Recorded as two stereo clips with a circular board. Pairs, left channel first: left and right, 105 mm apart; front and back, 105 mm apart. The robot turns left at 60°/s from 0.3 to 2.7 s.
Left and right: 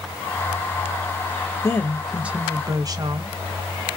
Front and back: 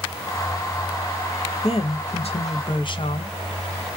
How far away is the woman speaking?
About 0.6 m.